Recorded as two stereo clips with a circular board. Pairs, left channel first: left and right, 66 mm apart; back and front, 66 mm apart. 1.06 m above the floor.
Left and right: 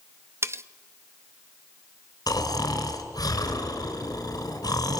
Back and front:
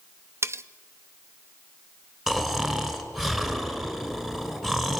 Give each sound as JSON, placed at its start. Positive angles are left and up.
{"t": 0.4, "sound": "cutlery clinking", "azimuth_deg": -45, "distance_m": 0.6}
{"t": 2.3, "sound": "snoring", "azimuth_deg": 85, "distance_m": 2.5}